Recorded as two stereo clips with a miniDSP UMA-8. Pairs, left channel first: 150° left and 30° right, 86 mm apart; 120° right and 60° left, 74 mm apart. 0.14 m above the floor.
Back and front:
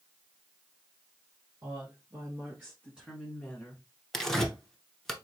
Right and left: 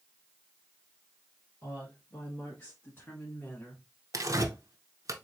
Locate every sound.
1.6 s a woman speaking: 65° right, 2 m; by 3.8 s 170° right, 1.3 m
4.1 s tearing paper: 65° left, 0.7 m